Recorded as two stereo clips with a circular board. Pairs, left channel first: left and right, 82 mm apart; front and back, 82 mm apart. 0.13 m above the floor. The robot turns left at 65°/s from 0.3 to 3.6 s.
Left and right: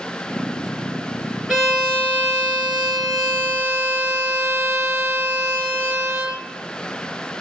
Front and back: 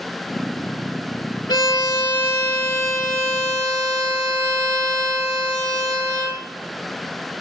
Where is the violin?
5° right, 0.6 m; by 6.4 s 145° right, 0.6 m.